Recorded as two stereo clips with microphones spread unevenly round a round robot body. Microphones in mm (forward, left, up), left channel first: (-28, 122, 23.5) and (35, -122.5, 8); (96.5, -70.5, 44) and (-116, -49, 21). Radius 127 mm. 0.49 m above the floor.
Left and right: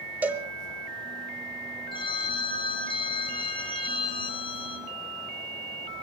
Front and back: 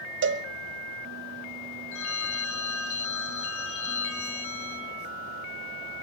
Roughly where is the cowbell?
Behind.